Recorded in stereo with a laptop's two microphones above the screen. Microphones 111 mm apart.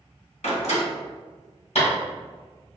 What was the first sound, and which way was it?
A door slam, 80° left.